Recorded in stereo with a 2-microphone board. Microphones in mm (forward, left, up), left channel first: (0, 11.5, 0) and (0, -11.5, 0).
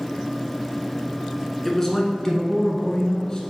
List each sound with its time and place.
1.6 s a man speaking: 15° left (ahead or behind), 1.1 m; by 3.4 s 30° left (ahead or behind), 1.8 m